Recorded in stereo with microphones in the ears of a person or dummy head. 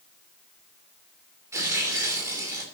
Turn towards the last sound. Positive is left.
turn(degrees=-15)  # may be behind; listen again after turning